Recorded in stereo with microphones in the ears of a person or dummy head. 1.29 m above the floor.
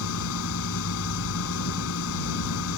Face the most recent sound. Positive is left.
turn(degrees=75)  # may be behind; listen again after turning